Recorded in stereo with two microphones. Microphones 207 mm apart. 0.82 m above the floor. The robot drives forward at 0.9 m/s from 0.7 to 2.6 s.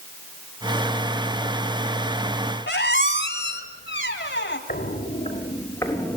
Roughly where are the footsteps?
Left.